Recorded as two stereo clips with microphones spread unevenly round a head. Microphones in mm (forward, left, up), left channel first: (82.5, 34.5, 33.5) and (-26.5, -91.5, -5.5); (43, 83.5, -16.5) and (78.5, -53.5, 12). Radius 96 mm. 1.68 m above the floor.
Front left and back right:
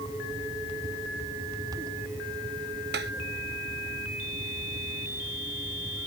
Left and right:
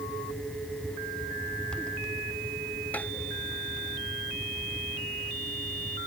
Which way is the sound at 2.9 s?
170° right.